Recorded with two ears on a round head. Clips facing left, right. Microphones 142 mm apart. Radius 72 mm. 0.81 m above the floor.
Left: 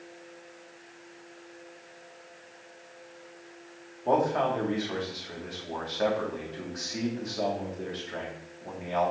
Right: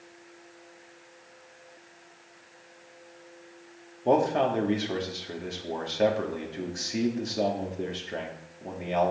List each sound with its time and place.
4.0 s a man speaking: 30° right (ahead or behind), 1.6 m